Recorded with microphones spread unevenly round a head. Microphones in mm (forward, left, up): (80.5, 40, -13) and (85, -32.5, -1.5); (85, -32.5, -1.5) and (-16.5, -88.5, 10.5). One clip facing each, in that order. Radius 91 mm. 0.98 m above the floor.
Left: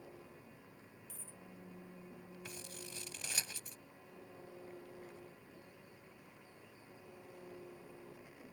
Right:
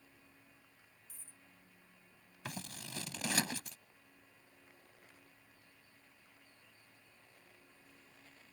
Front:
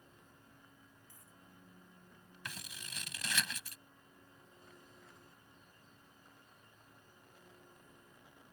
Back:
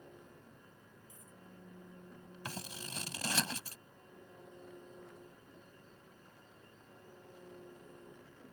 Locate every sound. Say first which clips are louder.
0.0 s an engine running: left 10 dB, back 7 dB; 155° left
1.1 s a dropped coin: left 8 dB, back 5 dB; 130° left
2.5 s scissors: right 7 dB, back 5 dB; 100° right